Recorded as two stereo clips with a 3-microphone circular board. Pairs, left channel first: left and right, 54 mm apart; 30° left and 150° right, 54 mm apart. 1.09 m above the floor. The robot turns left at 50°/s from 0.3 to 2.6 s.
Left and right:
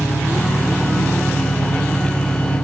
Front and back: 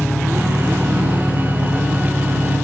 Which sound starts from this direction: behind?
An engine running, at 0.0 s.